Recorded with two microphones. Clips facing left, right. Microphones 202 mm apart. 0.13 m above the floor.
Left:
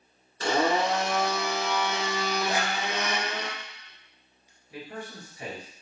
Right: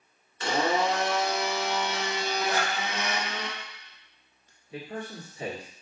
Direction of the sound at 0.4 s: 40° left (ahead or behind).